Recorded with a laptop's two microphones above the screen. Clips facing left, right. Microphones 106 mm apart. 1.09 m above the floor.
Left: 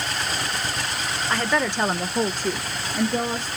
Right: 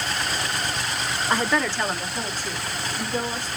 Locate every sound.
1.3 s a woman speaking: 20° right (ahead or behind), 0.5 m; by 3.5 s 75° left (ahead or behind), 1.3 m